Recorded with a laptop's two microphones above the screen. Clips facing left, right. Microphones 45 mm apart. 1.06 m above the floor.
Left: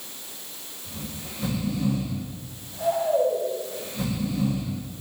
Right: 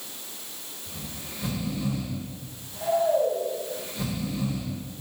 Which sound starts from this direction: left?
Snoring, at 0.8 s.